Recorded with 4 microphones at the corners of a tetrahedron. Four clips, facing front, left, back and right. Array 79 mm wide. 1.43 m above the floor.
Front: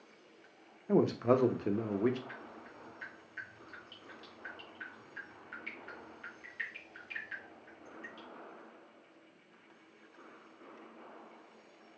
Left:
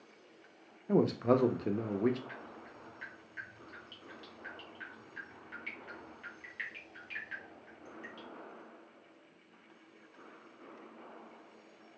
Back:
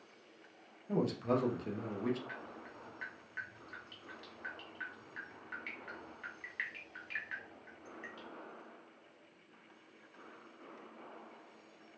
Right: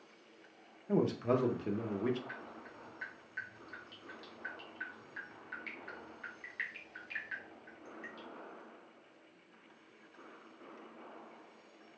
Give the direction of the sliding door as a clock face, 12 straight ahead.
No sliding door in this recording.